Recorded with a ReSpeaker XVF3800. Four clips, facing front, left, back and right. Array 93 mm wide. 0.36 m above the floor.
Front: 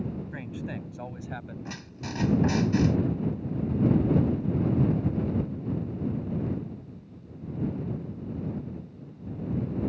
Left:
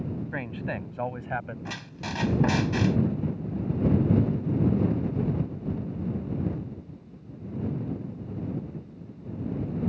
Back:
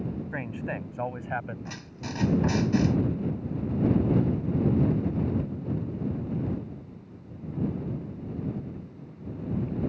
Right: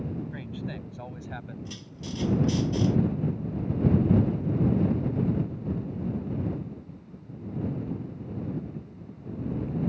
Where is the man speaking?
125° left; by 1.6 s 135° left.